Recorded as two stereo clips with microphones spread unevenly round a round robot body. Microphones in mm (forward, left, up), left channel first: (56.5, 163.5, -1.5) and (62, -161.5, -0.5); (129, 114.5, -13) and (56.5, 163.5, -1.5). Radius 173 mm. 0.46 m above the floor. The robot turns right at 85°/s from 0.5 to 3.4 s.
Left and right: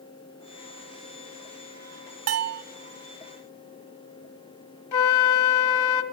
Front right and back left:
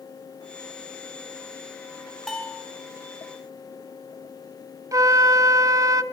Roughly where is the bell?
Behind right.